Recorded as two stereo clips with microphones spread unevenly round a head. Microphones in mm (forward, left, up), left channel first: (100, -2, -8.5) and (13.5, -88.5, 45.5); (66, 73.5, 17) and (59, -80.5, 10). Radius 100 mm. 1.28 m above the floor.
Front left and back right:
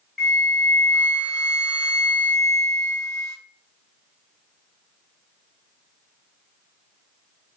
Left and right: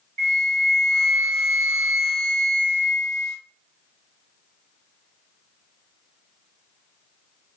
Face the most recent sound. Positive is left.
turn(degrees=-55)